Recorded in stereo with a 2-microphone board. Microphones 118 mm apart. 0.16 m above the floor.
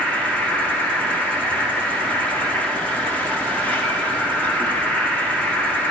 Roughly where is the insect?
Centre.